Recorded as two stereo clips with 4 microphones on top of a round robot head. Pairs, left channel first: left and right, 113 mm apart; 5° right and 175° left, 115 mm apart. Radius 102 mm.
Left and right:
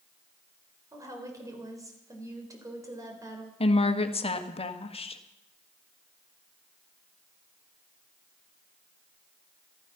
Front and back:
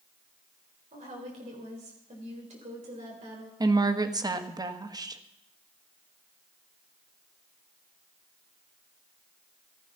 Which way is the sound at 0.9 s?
150° right.